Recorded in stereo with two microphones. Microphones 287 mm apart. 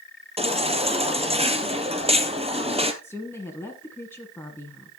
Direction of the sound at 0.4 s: 20° right (ahead or behind).